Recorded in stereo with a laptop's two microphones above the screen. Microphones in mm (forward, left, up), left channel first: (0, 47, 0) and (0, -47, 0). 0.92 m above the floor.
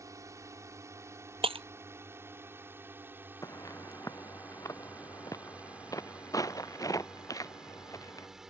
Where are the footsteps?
35° left (ahead or behind); by 8.3 s 40° left (ahead or behind).